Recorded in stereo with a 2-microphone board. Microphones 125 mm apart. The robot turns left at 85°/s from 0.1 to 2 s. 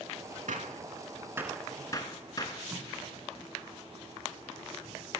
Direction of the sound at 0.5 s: 85° right.